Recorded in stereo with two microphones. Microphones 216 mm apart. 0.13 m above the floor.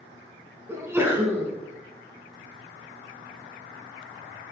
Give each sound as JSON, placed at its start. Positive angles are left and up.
{"t": 0.7, "sound": "a sneeze", "side_deg": -10, "distance_m": 1.1}